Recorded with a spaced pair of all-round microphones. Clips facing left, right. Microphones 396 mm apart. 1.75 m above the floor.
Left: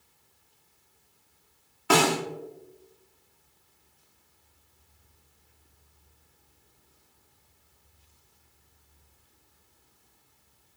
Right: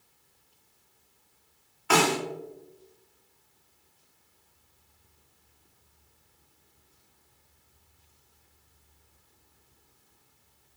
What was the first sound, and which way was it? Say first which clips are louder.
A snare drum: left 2 dB; 55° left (ahead or behind).